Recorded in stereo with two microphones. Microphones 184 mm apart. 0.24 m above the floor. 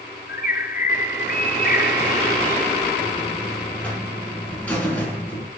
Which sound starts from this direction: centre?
A buzzer, at 3.0 s.